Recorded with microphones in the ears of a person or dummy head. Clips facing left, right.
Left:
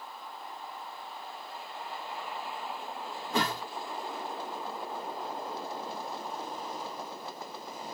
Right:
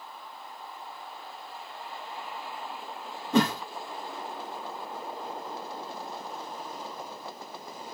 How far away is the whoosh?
About 0.8 m.